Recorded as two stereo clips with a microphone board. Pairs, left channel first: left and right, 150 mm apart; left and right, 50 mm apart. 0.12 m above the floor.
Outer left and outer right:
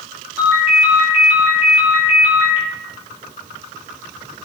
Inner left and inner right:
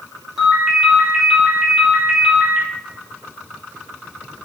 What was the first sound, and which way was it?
A ringtone, 10° right (ahead or behind).